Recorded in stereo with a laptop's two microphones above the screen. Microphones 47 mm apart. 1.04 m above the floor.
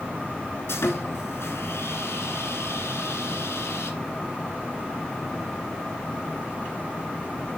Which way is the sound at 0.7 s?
75° left (ahead or behind).